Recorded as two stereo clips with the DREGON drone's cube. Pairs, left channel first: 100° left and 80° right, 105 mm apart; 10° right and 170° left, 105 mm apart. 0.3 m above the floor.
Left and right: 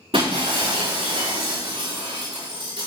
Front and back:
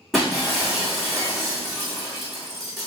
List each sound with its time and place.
0.1 s breaking glass: 100° right, 4 m